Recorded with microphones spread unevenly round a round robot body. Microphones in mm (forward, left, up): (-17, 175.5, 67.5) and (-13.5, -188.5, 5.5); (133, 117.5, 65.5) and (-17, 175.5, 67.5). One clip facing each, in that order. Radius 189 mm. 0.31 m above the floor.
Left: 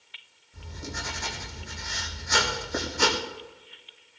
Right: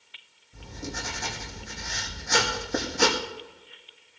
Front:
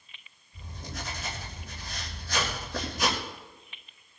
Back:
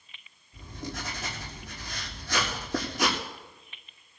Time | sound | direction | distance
0.5 | writing | 140° right | 6 m